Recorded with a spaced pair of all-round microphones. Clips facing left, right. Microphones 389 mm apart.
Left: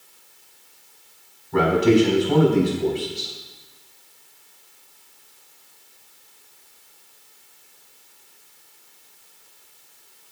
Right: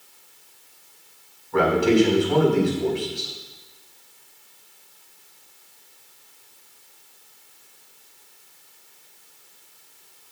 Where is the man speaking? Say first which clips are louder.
Left 1 dB; 50° left (ahead or behind), 4 m.